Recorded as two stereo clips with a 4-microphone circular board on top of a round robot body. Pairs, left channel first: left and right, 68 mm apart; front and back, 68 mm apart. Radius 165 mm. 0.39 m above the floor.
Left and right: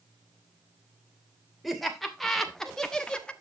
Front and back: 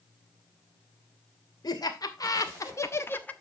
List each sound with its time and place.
1.6 s laughter: straight ahead, 3 m; by 3.3 s 35° left, 1.5 m